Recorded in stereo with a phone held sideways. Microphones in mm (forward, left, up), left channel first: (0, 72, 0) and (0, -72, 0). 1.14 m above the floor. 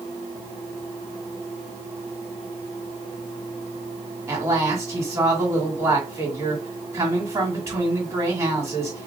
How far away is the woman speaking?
About 1.9 m.